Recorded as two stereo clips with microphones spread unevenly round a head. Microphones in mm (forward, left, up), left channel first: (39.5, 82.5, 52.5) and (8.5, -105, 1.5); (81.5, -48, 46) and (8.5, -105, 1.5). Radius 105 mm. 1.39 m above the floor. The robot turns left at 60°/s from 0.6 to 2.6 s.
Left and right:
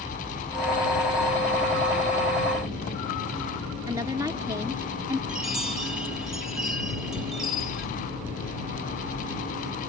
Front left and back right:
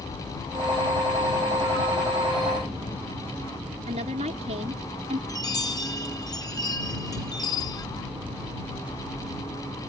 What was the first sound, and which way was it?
A woman speaking, 175° right.